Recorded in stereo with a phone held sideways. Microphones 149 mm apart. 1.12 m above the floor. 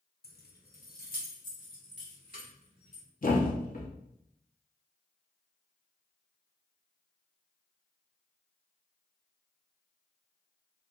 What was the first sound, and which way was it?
Keys jangling, 75° left (ahead or behind).